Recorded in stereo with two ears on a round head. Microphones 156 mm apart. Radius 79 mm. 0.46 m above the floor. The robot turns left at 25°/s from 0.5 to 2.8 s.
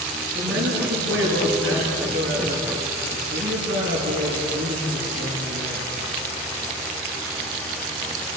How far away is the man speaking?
About 7 m.